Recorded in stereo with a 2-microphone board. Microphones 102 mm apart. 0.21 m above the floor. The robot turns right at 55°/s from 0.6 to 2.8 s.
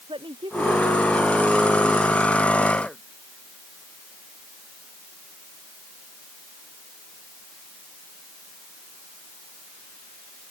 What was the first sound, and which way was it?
A woman speaking, 120° right.